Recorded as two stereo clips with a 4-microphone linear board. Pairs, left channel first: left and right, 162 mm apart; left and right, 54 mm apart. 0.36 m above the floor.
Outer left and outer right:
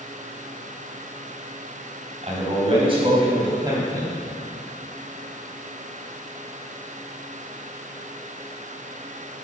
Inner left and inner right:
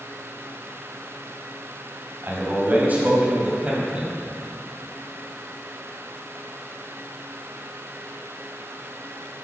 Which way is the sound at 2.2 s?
40° right (ahead or behind).